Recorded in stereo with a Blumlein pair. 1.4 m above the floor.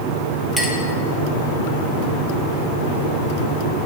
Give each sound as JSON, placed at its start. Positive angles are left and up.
{"t": 0.6, "sound": "a clink", "azimuth_deg": -5, "distance_m": 1.7}